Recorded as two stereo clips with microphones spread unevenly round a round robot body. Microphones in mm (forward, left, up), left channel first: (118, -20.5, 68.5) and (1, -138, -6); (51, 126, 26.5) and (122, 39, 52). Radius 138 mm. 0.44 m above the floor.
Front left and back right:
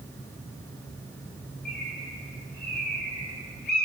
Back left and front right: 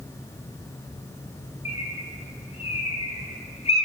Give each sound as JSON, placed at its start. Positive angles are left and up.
{"t": 1.6, "sound": "a bird", "azimuth_deg": 100, "distance_m": 6.0}